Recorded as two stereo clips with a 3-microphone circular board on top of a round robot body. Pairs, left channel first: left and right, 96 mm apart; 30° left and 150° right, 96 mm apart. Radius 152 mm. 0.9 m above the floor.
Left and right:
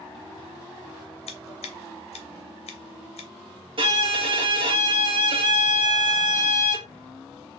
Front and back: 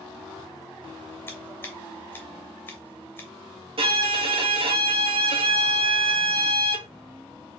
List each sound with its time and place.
1.3 s scissors: 100° left, 0.6 m
3.8 s a violin: 125° right, 1.2 m